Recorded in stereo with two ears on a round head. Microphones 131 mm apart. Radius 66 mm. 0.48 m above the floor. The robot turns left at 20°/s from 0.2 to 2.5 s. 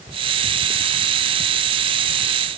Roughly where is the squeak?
I don't hear a squeak.